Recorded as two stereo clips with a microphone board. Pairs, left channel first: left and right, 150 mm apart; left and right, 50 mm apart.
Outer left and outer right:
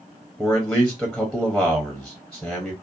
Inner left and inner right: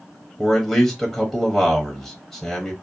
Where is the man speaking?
Centre (ahead or behind), 0.7 m.